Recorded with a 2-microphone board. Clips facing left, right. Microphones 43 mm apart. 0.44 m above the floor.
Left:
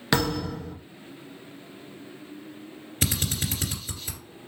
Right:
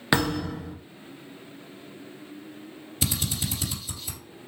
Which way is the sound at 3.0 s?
45° left (ahead or behind).